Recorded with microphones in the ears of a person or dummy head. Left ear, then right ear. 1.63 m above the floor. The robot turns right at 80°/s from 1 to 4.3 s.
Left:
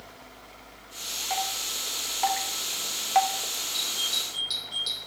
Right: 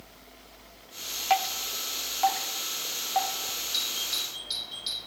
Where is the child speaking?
No child speaking in this recording.